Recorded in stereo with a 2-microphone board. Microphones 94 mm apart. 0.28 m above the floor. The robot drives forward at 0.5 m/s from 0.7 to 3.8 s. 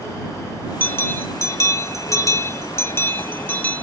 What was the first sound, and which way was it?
A bell, 20° left (ahead or behind).